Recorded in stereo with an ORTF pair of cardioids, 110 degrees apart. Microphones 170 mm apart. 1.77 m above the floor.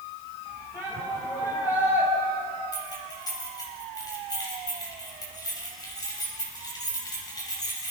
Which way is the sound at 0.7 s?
20° left.